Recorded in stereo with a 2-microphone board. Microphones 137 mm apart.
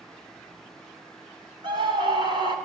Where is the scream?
35° right (ahead or behind), 1.8 m.